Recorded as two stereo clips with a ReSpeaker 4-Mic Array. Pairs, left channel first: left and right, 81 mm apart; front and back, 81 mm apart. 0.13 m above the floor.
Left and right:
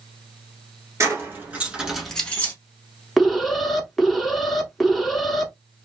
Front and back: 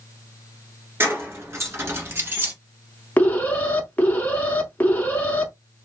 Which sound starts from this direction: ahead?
An alarm, at 3.2 s.